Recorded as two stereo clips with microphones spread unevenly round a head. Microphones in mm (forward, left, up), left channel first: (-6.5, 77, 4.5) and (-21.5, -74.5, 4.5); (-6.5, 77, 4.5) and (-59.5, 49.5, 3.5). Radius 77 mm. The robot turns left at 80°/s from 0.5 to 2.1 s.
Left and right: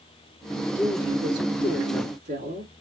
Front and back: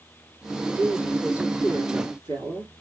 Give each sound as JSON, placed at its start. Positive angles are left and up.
{"t": 0.8, "sound": "a woman speaking", "azimuth_deg": -30, "distance_m": 3.5}